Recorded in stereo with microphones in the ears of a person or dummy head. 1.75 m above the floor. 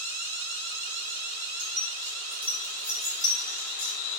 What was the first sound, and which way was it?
Keys jangling, 30° right (ahead or behind).